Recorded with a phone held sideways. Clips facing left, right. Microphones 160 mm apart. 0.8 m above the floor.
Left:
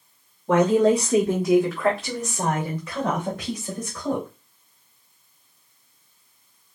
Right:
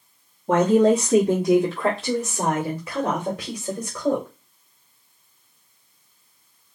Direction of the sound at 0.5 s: 20° right (ahead or behind).